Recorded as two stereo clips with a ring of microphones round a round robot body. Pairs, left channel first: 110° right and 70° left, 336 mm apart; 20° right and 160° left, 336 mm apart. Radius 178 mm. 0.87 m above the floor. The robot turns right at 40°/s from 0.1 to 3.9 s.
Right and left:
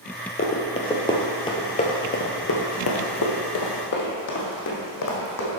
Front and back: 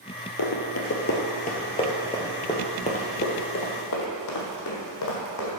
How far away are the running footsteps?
About 1.2 m.